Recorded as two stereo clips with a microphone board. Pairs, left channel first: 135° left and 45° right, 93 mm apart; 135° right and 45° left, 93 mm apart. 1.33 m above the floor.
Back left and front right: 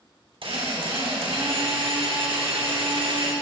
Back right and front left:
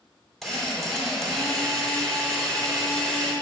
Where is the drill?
45° right, 2.5 m.